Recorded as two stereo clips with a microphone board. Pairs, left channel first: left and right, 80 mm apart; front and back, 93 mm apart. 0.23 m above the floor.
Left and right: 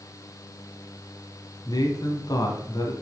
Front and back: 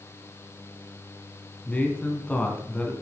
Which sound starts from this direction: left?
A man speaking, at 1.6 s.